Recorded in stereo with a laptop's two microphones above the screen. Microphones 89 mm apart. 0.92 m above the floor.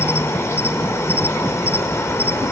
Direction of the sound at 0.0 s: 30° left (ahead or behind).